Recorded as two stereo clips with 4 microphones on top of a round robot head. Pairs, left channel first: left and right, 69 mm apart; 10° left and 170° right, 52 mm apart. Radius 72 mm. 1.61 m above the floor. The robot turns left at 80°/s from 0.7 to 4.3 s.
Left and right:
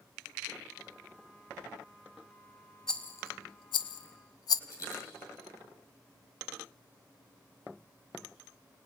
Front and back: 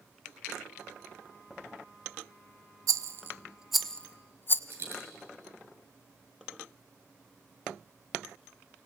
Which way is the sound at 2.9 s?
170° left.